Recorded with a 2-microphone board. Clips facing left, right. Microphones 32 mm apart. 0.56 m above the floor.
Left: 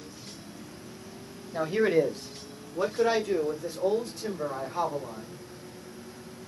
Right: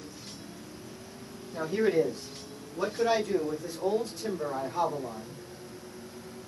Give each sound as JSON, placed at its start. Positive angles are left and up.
{"t": 1.5, "sound": "a man speaking", "side_deg": 35, "distance_m": 0.9}